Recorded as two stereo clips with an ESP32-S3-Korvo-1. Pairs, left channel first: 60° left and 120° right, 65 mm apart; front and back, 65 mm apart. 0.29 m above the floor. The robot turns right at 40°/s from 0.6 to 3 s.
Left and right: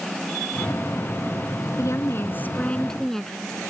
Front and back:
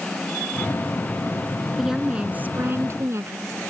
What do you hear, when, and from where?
1.8 s a woman speaking: 95° left; by 3.5 s 140° left